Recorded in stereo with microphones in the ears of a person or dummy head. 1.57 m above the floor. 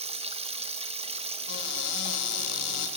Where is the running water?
30° right (ahead or behind), 1.6 m.